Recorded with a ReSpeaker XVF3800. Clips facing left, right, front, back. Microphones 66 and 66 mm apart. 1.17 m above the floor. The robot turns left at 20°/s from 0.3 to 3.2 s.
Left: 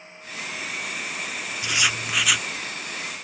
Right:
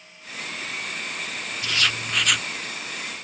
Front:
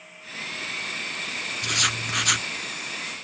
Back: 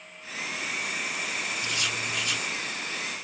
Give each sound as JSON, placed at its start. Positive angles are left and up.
{"t": 1.6, "sound": "writing", "azimuth_deg": 20}